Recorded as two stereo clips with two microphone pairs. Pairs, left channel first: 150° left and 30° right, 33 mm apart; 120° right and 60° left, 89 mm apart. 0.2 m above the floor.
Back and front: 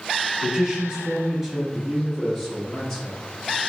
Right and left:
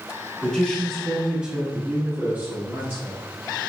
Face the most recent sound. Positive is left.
turn(degrees=75)